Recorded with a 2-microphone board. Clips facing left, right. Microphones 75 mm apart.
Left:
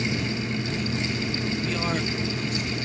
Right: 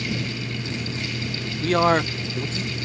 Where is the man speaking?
70° right (ahead or behind); by 2.8 s 20° right (ahead or behind).